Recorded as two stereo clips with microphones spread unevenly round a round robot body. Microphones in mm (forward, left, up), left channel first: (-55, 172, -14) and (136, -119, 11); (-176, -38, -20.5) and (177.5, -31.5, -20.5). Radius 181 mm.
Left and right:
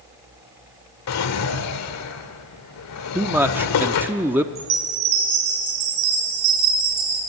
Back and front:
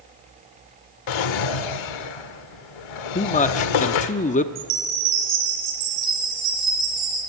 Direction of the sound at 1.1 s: 170° left.